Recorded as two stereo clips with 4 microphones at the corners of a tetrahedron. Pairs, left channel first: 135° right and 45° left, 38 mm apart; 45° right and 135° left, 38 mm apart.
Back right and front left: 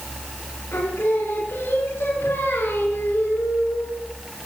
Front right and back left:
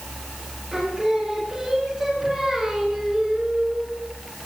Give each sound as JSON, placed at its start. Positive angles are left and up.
{"t": 0.7, "sound": "singing", "azimuth_deg": -140, "distance_m": 4.0}